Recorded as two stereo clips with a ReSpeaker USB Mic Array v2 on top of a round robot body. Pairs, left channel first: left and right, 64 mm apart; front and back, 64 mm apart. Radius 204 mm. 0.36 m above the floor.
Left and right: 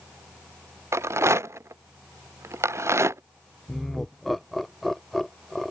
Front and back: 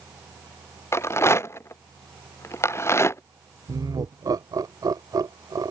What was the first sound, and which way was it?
A rattle, 50° right.